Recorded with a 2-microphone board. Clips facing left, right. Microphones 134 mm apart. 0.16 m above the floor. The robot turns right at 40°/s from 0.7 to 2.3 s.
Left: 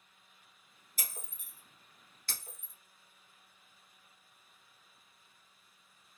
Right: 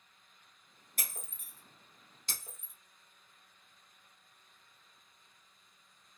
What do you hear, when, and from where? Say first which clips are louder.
1.0 s breaking glass: even; 60° right (ahead or behind), 1.4 m; by 2.7 s 20° right (ahead or behind), 1.4 m